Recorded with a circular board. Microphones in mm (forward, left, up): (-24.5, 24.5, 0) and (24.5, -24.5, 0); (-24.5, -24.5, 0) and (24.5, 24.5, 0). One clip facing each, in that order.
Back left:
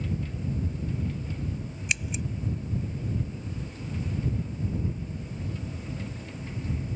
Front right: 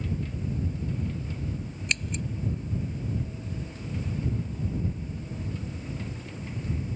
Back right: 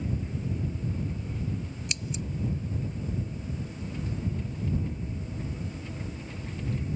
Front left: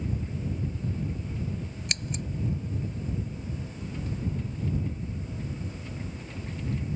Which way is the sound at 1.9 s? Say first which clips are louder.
Even, front left 1 dB; 55° left.